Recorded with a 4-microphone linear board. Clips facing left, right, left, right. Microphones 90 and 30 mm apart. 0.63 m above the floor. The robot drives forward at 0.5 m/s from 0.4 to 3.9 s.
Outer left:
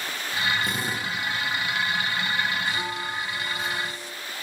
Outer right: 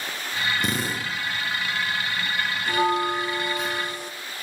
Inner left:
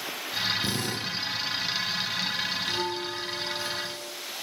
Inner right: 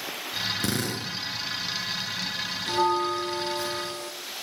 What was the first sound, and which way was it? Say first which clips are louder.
A drill: outer right 1 dB, inner right 1 dB; 85° right.